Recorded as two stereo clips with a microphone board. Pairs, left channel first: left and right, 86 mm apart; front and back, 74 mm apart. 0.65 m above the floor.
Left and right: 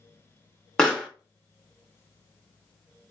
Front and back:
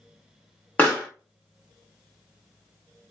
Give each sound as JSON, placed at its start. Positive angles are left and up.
{"t": 0.8, "sound": "a pop", "azimuth_deg": 20, "distance_m": 1.1}